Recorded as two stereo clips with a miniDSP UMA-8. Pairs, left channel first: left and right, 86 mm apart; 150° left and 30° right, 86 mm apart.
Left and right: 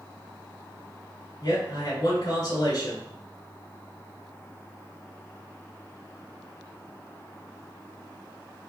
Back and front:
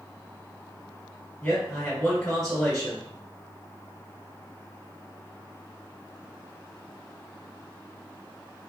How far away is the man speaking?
About 1.5 m.